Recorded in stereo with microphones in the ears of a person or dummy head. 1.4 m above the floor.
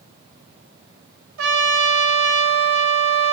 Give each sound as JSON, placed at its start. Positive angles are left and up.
{"t": 1.4, "sound": "a trumpet", "side_deg": -85, "distance_m": 0.7}